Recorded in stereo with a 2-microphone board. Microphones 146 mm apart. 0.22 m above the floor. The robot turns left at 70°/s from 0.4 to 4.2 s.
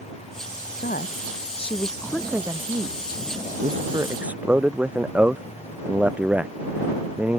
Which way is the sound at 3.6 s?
50° right (ahead or behind).